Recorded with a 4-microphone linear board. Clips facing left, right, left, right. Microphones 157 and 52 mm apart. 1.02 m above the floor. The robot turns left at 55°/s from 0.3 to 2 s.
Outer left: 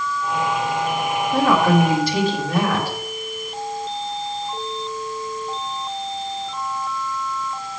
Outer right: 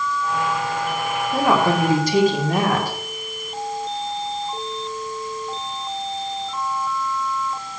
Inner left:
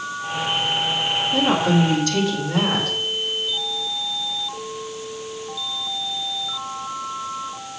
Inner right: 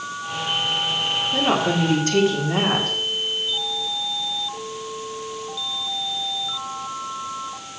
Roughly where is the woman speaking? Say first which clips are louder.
Outer left 2 dB, inner left 2 dB; ahead.